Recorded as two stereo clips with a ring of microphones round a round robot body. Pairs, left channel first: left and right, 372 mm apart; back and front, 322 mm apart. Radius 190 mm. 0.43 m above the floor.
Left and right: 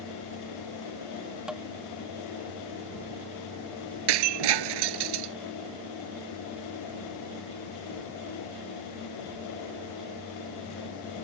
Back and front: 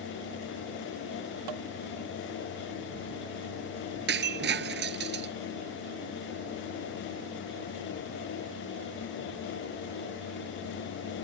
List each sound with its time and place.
1.5 s tapping: straight ahead
4.1 s breaking glass: 65° right